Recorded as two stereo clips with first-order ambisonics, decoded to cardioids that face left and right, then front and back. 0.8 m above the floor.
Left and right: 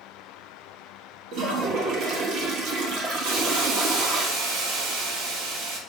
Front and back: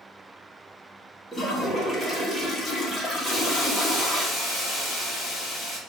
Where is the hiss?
90° right, 2.5 m.